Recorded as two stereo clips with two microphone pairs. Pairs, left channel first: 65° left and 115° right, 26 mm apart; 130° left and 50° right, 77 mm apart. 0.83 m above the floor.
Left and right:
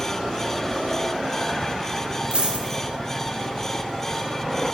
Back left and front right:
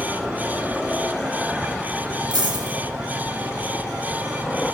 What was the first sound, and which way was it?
A dropped coin, 65° right.